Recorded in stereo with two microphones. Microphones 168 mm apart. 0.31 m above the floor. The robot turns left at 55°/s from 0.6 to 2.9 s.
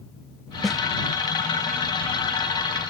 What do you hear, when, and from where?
0.6 s a snare drum: centre (ahead or behind); by 0.8 s 5° right (ahead or behind)